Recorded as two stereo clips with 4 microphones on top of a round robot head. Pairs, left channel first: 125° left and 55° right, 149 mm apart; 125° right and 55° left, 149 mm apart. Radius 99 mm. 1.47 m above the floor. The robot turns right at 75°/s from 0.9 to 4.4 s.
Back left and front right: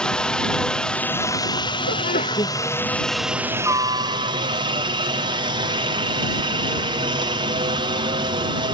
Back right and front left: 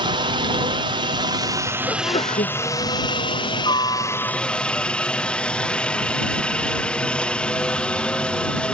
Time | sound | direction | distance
0.0 | a helicopter | 45° left | ?
1.9 | a sneeze | 150° left | ?